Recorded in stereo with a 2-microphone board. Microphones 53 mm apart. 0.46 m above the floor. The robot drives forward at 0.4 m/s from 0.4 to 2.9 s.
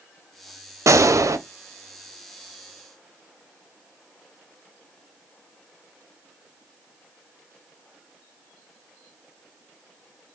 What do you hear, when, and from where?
0.9 s a gunshot: 75° right (ahead or behind), 0.6 m; by 1.4 s 80° right, 0.5 m